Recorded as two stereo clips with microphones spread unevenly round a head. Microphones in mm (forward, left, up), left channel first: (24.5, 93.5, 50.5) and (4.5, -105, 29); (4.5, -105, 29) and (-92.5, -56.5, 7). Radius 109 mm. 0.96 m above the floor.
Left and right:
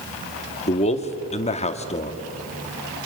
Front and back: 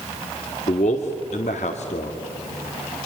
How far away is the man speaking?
About 2 m.